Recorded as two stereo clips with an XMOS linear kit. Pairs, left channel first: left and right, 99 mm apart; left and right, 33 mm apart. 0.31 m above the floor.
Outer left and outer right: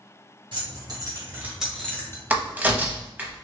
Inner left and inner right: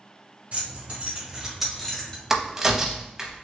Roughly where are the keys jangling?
Right.